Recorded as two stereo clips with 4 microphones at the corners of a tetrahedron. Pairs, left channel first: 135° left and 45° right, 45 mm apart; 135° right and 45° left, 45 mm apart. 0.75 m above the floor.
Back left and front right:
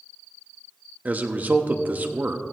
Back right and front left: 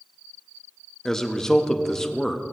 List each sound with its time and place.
1.1 s a man speaking: 60° right, 0.7 m